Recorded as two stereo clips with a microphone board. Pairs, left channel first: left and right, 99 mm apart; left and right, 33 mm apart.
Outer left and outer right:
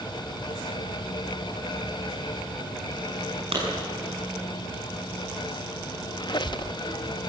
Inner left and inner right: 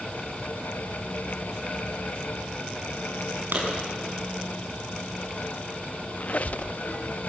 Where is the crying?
I don't hear crying.